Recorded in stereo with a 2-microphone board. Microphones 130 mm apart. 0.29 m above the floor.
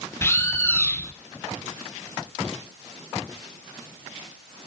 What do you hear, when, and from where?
0.2 s a bird: 20° left (ahead or behind), 1.2 m